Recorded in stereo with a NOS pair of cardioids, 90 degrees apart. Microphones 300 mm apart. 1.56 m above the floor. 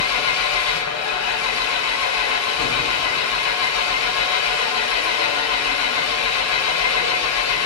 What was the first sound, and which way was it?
An engine running, 60° left.